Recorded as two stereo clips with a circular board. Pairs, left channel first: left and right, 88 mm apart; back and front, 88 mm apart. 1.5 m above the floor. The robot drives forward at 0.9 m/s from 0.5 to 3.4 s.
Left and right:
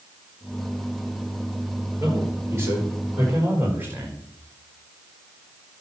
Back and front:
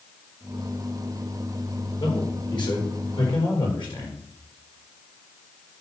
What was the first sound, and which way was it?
A man speaking, 150° right.